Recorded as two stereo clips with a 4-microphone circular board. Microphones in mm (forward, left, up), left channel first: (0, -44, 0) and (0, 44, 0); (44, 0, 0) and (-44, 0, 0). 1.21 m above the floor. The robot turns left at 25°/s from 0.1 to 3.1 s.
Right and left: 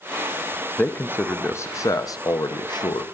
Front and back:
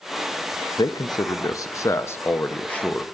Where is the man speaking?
20° right, 0.7 m; by 3.0 s 75° right, 0.7 m.